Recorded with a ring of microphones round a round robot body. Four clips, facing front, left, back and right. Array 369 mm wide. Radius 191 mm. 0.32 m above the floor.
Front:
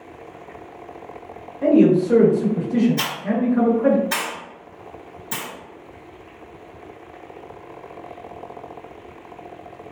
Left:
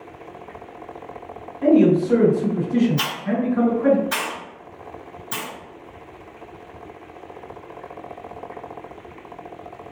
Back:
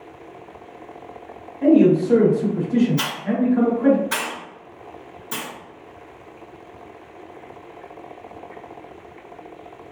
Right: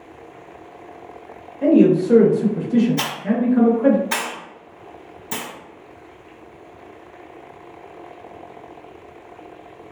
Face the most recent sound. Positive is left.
turn(degrees=-65)